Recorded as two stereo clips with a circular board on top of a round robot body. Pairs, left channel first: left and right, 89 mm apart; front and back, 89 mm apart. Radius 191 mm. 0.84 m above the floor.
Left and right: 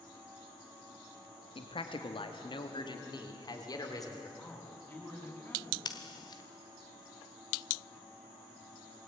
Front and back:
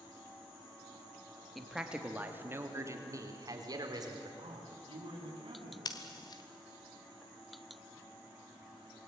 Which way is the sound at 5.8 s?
45° left.